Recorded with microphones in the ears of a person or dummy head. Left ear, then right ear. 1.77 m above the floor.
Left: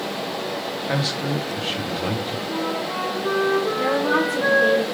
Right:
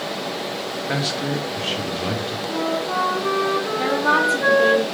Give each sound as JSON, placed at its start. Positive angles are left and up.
{"t": 0.9, "sound": "a man speaking", "side_deg": -10, "distance_m": 0.6}
{"t": 2.5, "sound": "a flute", "side_deg": -25, "distance_m": 1.0}
{"t": 3.8, "sound": "a woman speaking", "side_deg": -15, "distance_m": 0.6}